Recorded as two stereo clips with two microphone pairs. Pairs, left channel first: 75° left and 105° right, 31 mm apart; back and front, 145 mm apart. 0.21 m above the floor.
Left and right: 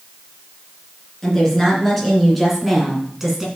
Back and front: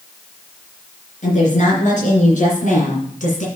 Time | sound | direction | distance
1.2 | a woman speaking | 150° left | 3 m